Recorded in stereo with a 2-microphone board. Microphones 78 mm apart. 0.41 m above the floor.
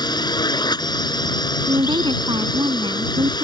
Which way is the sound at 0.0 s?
60° left (ahead or behind).